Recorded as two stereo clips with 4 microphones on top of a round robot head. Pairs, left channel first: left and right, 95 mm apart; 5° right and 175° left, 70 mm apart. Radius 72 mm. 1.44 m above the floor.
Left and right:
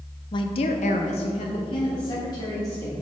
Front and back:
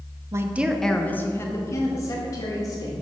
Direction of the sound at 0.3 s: 130° left.